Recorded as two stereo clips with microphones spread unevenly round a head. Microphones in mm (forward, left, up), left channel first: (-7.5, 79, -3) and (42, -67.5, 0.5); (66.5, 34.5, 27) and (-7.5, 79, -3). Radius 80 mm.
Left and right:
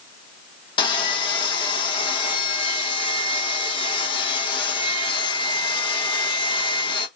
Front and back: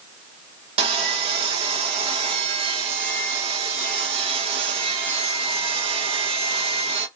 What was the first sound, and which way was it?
Sawing, 175° left.